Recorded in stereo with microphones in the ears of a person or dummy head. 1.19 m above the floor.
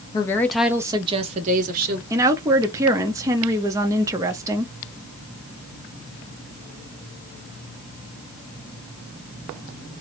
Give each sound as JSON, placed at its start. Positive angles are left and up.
{"t": 0.1, "sound": "a woman speaking", "side_deg": 25, "distance_m": 0.6}
{"t": 2.1, "sound": "a woman speaking", "side_deg": -15, "distance_m": 0.6}